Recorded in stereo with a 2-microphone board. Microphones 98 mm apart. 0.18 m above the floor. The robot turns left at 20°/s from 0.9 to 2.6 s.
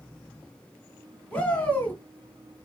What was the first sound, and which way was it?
A shout, 10° left (ahead or behind).